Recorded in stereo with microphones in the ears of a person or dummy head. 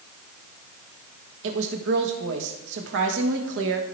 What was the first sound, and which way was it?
A woman speaking, 70° right (ahead or behind).